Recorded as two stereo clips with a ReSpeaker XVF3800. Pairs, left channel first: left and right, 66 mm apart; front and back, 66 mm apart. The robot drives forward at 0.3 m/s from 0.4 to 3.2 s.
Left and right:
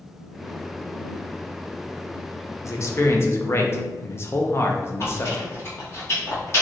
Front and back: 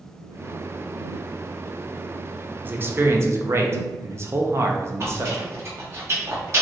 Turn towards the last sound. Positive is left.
turn(degrees=135)